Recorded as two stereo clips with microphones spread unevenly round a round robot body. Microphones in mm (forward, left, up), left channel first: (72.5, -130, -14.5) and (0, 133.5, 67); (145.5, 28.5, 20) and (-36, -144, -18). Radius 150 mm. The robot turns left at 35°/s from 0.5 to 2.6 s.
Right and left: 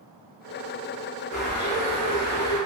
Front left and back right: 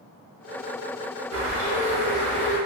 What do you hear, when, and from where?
1.3 s a bird: 130° right, 1.0 m; by 2.6 s 175° right, 1.0 m